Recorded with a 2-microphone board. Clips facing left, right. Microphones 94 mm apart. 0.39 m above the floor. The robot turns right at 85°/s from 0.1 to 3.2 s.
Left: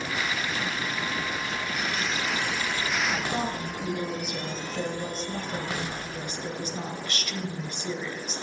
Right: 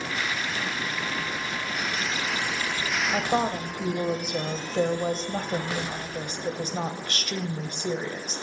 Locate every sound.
3.1 s a woman speaking: 55° right (ahead or behind), 1.7 m; by 8.4 s 50° right (ahead or behind), 1.7 m